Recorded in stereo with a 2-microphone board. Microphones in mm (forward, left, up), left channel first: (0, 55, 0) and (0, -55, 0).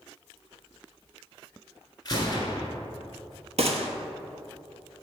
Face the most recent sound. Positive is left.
turn(degrees=-70)  # may be behind; listen again after turning